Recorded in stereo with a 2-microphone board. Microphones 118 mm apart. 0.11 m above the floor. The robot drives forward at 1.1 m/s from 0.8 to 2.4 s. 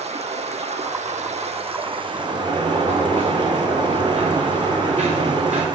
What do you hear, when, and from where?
0.0 s running water: 70° right (ahead or behind), 1.2 m; by 5.8 s 35° right (ahead or behind), 1.8 m
2.1 s a sliding door: 65° right (ahead or behind), 7 m; by 5.7 s 60° right (ahead or behind), 7 m